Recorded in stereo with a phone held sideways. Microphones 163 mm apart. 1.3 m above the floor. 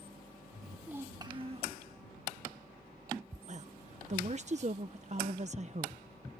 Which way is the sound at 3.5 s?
45° right (ahead or behind).